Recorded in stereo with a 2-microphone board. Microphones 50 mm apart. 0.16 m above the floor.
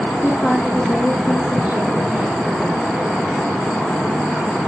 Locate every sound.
0.2 s a woman speaking: 20° left (ahead or behind), 9.5 m; by 3.4 s centre (ahead or behind), 11.5 m